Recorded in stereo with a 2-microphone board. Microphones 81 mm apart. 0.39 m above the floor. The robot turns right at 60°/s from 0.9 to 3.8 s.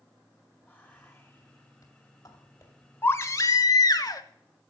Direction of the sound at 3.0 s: 35° left.